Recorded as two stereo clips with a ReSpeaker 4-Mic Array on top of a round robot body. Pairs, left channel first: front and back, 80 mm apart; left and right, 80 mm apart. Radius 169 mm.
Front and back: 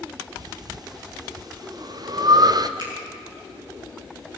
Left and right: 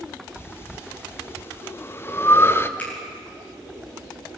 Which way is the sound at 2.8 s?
165° left.